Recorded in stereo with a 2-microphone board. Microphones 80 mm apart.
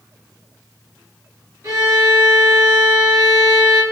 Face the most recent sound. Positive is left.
turn(degrees=-45)  # may be behind; listen again after turning